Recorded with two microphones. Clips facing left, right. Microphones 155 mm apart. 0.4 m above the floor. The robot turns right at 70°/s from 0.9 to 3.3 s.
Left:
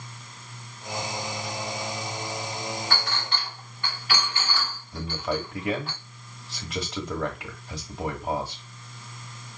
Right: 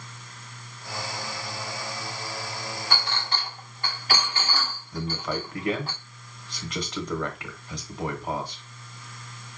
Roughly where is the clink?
Centre.